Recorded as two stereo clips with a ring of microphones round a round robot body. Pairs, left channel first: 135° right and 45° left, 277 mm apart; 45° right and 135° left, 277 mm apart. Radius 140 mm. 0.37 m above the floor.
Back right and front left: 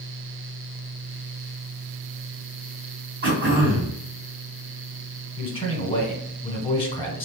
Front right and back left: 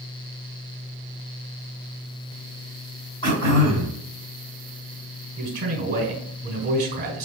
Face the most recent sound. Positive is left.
turn(degrees=170)